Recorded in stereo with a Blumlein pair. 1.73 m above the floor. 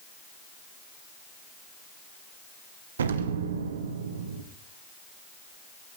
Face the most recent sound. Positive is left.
turn(degrees=-65)